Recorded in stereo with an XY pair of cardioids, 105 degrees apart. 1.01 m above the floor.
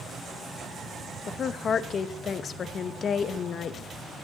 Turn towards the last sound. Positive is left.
turn(degrees=45)